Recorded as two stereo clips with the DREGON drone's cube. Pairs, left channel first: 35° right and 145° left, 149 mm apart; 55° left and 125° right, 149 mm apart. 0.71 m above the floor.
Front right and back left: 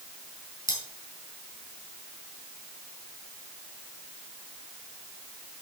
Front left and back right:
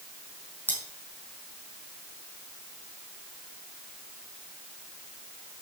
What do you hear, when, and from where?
0.7 s cutlery clinking: 20° right, 4.5 m